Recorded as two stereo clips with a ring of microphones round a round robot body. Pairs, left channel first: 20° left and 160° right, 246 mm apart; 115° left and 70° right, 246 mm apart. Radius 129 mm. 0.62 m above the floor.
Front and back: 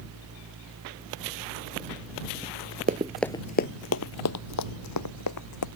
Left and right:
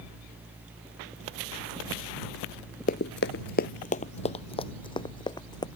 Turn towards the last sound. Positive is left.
turn(degrees=40)